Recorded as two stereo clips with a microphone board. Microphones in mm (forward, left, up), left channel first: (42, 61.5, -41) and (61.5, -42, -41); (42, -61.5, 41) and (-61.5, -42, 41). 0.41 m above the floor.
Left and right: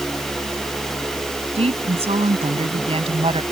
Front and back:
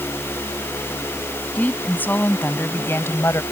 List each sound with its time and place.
1.6 s a woman speaking: 85° right; by 3.4 s 70° right